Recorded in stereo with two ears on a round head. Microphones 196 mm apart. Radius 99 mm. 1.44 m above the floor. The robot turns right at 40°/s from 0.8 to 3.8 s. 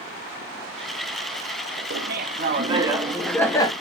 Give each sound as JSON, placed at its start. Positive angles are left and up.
{"t": 1.9, "sound": "laughter", "azimuth_deg": -50, "distance_m": 0.8}